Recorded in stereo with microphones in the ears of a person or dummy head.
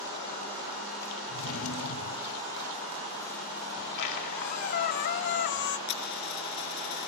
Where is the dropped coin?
55° left (ahead or behind), 4 m.